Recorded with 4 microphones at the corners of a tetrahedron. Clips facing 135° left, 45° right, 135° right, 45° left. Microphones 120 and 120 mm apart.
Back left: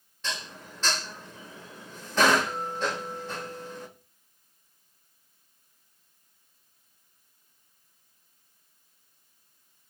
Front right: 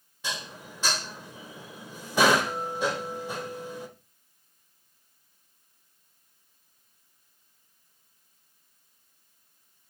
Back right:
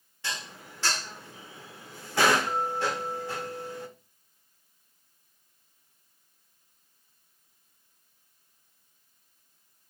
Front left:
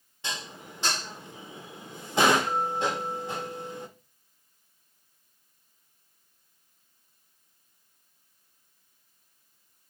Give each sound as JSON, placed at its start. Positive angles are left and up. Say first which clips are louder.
{"t": 0.2, "sound": "dishes clattering", "louder": "even, front left 1 dB", "azimuth_deg": 10, "distance_m": 0.5}